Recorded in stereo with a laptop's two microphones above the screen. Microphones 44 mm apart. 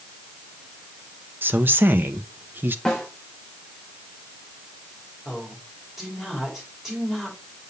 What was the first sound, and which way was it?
A woman speaking, 50° right (ahead or behind).